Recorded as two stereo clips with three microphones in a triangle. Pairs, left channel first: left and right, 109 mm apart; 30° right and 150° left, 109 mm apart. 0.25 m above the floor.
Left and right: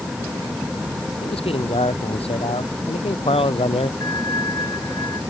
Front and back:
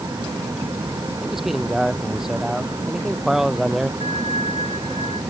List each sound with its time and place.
1.2 s a man speaking: 65° left
4.0 s a bell: 145° left